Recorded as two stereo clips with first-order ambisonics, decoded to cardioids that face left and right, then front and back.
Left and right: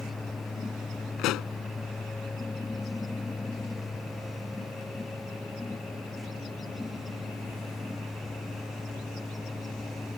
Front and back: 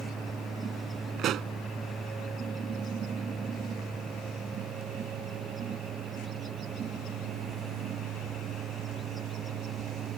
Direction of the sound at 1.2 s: 130° left.